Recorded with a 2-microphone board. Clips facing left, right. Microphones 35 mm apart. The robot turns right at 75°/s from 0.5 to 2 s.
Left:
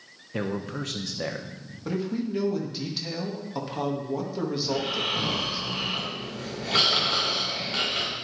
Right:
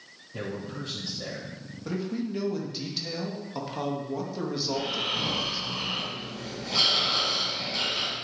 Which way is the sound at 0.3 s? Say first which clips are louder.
Left 5 dB; 60° left.